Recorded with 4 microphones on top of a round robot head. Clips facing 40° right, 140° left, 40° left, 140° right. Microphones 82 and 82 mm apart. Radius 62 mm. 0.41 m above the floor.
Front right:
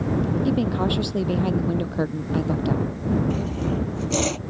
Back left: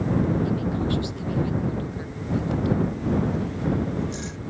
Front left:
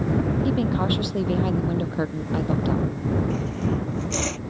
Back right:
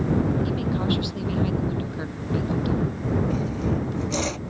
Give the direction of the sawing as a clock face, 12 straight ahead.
2 o'clock.